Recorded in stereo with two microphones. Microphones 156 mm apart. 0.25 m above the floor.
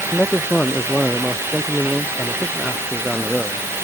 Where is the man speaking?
5° left (ahead or behind).